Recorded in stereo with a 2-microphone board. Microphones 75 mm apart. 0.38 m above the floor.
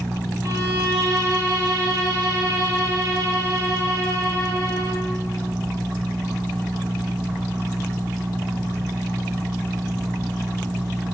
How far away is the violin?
About 1.0 m.